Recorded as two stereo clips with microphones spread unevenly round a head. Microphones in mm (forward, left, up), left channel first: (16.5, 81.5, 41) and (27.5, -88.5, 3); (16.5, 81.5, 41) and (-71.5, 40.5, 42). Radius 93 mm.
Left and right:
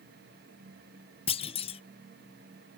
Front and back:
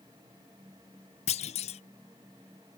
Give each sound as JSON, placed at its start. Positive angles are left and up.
{"t": 1.3, "sound": "a clunk", "azimuth_deg": 35}